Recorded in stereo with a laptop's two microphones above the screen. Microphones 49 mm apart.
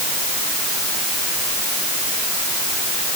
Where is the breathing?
I don't hear breathing.